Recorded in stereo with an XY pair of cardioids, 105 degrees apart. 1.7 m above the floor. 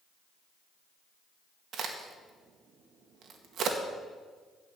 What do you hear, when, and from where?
1.7 s a crack: 65° right, 1.7 m